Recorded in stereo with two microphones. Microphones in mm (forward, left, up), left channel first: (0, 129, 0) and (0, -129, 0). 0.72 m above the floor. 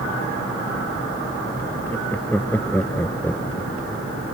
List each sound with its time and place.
1.9 s laughter: 5° left (ahead or behind); by 4.1 s 10° left (ahead or behind)